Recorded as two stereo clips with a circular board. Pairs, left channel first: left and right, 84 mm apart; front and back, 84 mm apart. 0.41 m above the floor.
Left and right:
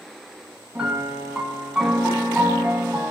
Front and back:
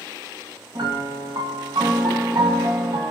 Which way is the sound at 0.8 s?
170° right.